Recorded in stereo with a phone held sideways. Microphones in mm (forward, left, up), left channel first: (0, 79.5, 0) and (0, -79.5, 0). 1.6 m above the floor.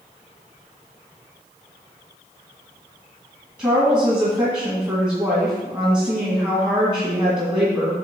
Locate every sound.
3.6 s a woman speaking: 25° right (ahead or behind), 2 m